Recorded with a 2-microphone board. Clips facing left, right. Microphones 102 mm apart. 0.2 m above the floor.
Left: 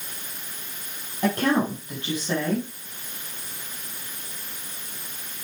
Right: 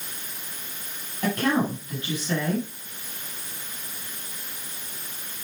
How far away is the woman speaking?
About 5 m.